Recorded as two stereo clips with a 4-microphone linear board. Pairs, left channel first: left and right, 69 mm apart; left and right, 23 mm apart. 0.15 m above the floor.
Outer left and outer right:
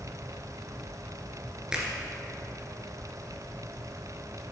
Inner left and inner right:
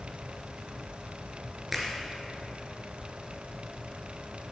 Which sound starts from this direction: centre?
A finger snap, at 1.7 s.